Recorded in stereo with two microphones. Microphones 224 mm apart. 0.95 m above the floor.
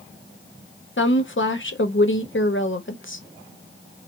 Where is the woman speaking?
60° left (ahead or behind), 0.9 m.